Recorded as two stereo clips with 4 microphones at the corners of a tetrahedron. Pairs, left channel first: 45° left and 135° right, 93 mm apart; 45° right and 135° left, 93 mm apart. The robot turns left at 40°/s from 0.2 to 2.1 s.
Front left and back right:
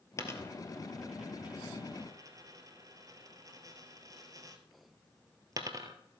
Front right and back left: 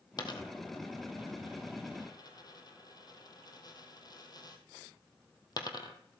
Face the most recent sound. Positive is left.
turn(degrees=-85)